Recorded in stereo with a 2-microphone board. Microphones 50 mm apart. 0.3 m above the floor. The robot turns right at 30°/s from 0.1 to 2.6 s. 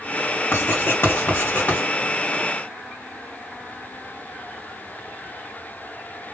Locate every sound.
0.5 s writing: 55° left (ahead or behind), 2.5 m; by 1.8 s 40° left (ahead or behind), 2.5 m